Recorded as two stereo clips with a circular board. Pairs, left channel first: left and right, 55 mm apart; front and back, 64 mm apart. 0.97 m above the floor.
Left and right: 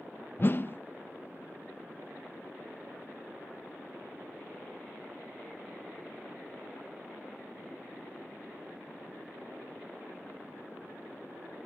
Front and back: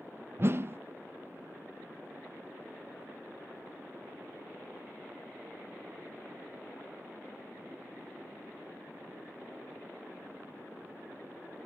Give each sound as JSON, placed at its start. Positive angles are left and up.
{"t": 0.4, "sound": "a whoosh", "azimuth_deg": 135, "distance_m": 0.5}